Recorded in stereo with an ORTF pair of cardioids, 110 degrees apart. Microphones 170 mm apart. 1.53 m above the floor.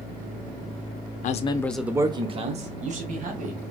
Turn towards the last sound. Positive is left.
turn(degrees=-55)